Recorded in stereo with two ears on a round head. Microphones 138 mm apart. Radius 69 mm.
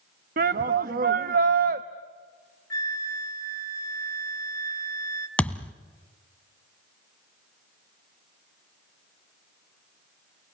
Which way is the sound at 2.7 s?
20° left (ahead or behind).